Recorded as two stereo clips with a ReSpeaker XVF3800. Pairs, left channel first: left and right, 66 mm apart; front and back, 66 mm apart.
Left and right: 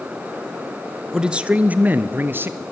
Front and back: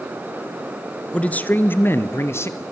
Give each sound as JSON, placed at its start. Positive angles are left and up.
{"t": 1.1, "sound": "a man speaking", "azimuth_deg": -30, "distance_m": 1.1}